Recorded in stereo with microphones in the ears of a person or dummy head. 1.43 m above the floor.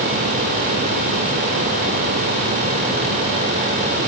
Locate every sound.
Only background noise.